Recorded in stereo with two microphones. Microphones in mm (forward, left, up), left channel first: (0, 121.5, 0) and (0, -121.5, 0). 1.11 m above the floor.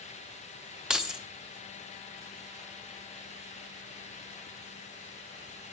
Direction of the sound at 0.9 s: 5° right (ahead or behind).